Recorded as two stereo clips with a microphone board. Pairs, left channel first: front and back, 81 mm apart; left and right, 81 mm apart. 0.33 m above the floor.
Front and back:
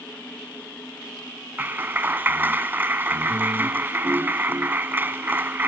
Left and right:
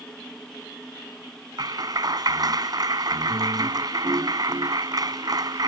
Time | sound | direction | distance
1.6 | a clap | 115° right | ?